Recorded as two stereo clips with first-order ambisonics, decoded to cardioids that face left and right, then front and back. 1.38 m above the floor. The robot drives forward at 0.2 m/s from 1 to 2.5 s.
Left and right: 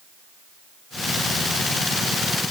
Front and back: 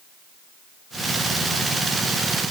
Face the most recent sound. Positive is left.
No sound to turn to.